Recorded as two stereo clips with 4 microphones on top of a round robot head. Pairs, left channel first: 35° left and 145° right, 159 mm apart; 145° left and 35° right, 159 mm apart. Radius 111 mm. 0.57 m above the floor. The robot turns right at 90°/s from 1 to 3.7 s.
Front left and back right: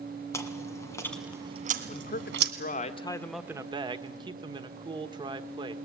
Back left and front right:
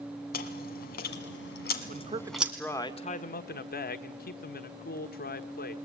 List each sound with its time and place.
0.3 s chewing: 110° left, 1.7 m; by 2.5 s 110° right, 1.7 m
1.9 s a man speaking: 5° right, 1.5 m; by 5.8 s 155° left, 1.5 m